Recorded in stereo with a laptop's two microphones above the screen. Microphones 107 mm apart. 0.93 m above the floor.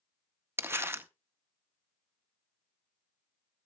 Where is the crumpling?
20° right (ahead or behind), 0.6 m.